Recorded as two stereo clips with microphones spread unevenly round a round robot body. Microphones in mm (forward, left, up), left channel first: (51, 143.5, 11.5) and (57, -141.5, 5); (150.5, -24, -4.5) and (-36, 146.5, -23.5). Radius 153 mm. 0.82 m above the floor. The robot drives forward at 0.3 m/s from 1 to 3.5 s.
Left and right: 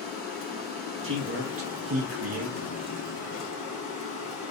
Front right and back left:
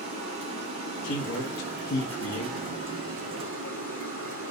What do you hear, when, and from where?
0.0 s running water: 150° left, 2 m; by 4.5 s 160° left, 2.5 m
1.0 s a man speaking: 50° right, 1.0 m; by 2.9 s 90° right, 0.9 m